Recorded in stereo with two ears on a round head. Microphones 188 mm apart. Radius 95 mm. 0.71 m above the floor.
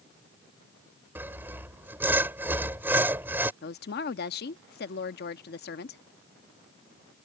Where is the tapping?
I don't hear tapping.